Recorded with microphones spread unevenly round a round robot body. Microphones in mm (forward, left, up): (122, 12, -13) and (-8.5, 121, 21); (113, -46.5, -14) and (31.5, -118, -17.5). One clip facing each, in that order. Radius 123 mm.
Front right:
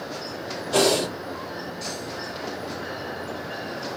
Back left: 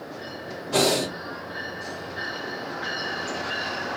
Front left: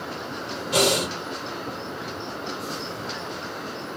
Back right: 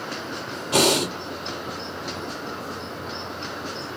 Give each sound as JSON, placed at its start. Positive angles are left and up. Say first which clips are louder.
{"t": 0.7, "sound": "breathing", "louder": "front right 2 dB, back right 2 dB", "azimuth_deg": -125, "distance_m": 2.5}